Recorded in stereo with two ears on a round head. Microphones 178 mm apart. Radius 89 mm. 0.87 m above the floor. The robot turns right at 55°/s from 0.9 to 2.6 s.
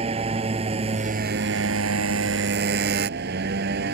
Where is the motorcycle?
150° right; by 3.9 s 55° right.